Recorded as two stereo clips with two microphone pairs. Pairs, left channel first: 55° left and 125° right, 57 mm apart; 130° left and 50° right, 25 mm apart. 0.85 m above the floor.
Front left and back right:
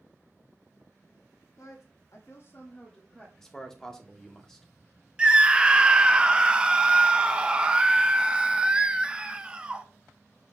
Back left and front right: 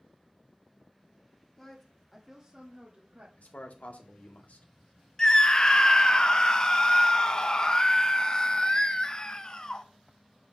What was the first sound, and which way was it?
A woman speaking, 65° left.